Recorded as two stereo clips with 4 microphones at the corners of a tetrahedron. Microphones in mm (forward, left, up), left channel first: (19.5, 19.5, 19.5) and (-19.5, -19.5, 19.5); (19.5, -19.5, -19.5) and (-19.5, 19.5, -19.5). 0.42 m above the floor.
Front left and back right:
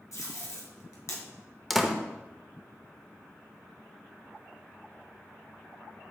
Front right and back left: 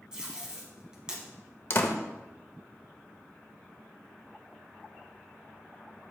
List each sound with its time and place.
0.1 s tape being pulled: 60° left, 2 m
1.7 s a door slam: 45° right, 0.8 m